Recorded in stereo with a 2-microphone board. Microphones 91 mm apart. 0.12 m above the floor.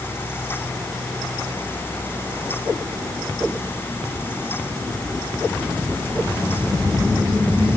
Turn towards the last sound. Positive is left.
No sound to turn to.